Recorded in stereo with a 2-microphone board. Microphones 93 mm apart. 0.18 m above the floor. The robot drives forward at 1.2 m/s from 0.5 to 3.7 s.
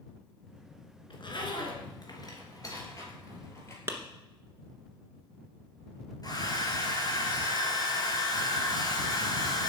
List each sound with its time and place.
1.1 s a zipper: 60° left (ahead or behind), 2.5 m; by 3.8 s 30° left (ahead or behind), 4 m
3.9 s a clap: 25° right (ahead or behind), 1.6 m
6.2 s a hair dryer: 45° left (ahead or behind), 2.5 m